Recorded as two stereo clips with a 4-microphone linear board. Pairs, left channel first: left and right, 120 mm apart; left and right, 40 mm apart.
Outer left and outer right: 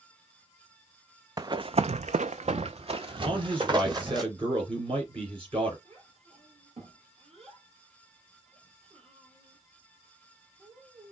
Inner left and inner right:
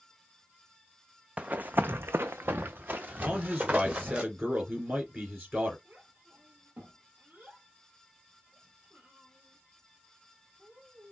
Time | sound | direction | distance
1.4 | running footsteps | 30° right (ahead or behind) | 0.6 m
3.2 | a man speaking | 45° right (ahead or behind) | 2.5 m
5.8 | a child speaking | 55° right (ahead or behind) | 3 m